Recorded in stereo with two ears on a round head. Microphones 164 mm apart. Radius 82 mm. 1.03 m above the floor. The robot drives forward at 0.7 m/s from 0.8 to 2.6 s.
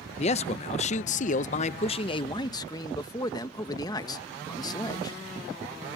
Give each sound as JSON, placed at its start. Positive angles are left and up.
{"t": 0.2, "sound": "a man speaking", "side_deg": 35}